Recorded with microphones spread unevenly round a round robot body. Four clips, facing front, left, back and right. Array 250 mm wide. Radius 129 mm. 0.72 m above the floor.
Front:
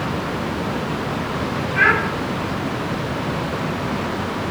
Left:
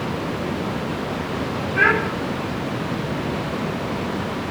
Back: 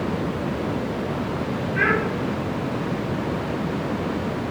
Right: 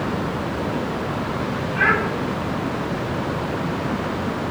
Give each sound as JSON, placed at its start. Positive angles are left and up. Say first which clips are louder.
{"t": 1.8, "sound": "a child speaking", "louder": "left 2 dB, front 4 dB", "azimuth_deg": 125, "distance_m": 6.0}